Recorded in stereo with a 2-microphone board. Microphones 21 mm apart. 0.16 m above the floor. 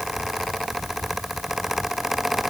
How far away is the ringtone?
No ringtone in this recording.